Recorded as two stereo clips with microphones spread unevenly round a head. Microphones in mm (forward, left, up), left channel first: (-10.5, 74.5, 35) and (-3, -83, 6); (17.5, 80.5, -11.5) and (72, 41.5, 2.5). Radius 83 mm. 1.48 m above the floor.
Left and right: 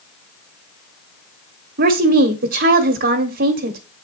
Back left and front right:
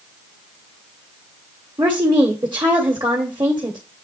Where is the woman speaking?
100° right, 1.1 m.